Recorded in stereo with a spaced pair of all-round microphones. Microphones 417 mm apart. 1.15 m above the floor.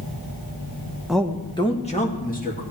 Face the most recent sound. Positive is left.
turn(degrees=20)  # may be behind; listen again after turning